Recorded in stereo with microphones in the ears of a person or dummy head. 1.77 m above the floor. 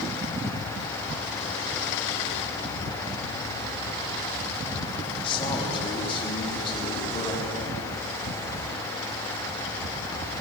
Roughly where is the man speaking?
Left.